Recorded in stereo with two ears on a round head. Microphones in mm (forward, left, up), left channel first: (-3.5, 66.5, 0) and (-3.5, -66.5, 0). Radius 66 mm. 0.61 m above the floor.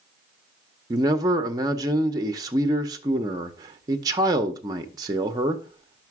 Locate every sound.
0.9 s a man speaking: 25° right (ahead or behind), 0.7 m